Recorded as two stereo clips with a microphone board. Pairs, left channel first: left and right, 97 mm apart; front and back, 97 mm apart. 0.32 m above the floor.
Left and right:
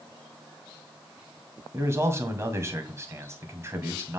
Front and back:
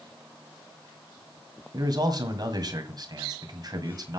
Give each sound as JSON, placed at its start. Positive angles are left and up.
{"t": 1.7, "sound": "a man speaking", "azimuth_deg": -145, "distance_m": 1.9}